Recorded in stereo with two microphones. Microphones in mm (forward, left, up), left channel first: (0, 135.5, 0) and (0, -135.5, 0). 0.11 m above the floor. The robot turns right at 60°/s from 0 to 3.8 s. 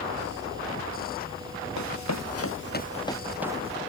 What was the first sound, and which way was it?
Running footsteps, 85° left.